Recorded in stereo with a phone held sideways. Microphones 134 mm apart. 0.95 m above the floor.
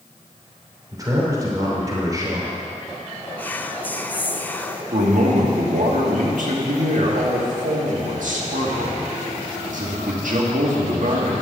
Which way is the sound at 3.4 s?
10° left (ahead or behind).